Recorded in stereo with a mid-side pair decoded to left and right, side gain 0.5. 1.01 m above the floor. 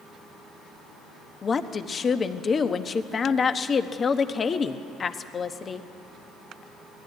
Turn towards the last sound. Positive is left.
turn(degrees=40)